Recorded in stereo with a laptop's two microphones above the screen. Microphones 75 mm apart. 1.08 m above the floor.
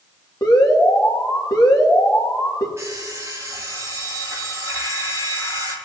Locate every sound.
0.4 s an alarm: 55° left (ahead or behind), 1.8 m
2.8 s an alarm clock: 40° right (ahead or behind), 6 m